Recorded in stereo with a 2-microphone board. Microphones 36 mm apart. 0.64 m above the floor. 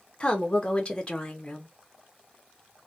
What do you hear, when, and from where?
0.2 s a woman speaking: 25° left (ahead or behind), 0.8 m